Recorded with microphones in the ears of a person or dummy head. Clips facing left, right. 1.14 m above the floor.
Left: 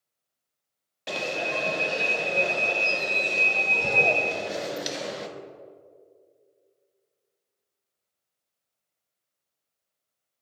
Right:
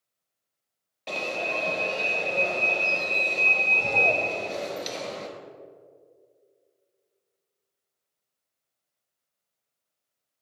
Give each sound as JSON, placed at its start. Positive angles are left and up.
{"t": 1.1, "sound": "an alarm", "side_deg": 15, "distance_m": 0.7}